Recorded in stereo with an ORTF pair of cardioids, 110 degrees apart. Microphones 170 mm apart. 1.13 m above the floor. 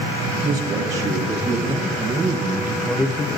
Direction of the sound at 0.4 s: 45° right.